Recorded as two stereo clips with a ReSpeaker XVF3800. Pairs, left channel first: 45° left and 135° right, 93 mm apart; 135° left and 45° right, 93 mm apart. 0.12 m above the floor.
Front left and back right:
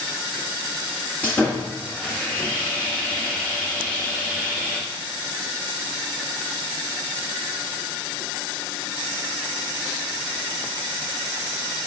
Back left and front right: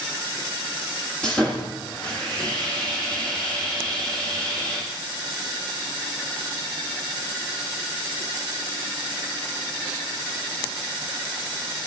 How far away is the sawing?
About 1.6 m.